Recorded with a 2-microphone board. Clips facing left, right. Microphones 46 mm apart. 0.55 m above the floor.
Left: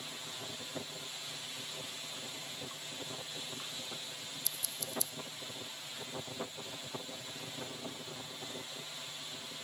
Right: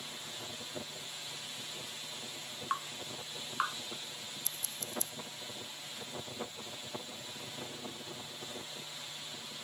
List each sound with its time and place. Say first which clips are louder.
2.7 s dripping: right 7 dB; 80° right
4.5 s scissors: left 1 dB; 40° right (ahead or behind)